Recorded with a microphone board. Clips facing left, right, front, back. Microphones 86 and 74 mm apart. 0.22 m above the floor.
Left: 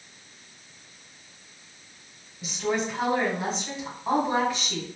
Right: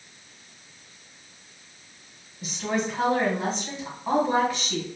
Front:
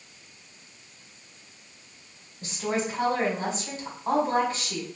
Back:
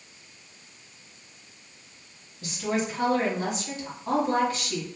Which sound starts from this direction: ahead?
A woman speaking, at 2.4 s.